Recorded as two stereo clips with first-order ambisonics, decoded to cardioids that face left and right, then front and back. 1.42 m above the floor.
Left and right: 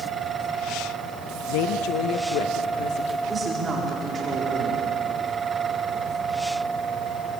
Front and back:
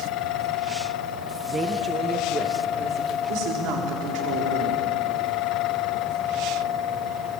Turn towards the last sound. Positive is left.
turn(degrees=-160)